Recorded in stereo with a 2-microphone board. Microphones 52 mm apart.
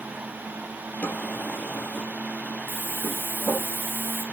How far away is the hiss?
About 2.5 m.